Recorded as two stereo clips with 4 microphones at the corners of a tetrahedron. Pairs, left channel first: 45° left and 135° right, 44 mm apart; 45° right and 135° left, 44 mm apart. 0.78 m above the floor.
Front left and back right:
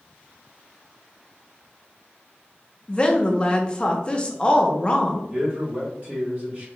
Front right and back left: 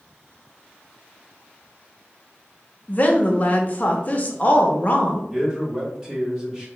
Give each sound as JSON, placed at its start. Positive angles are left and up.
{"t": 2.9, "sound": "a woman speaking", "azimuth_deg": -10, "distance_m": 0.5}
{"t": 5.3, "sound": "a man speaking", "azimuth_deg": -155, "distance_m": 1.4}